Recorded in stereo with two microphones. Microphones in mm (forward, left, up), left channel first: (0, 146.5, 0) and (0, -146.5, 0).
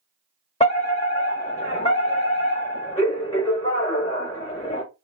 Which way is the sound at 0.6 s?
20° left (ahead or behind).